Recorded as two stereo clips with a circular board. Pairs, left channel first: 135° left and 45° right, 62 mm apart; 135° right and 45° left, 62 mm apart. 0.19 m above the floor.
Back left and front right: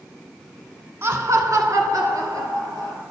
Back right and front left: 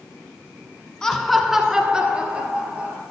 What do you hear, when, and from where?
1.0 s laughter: 60° right, 1.3 m; by 3.0 s 20° right, 3.5 m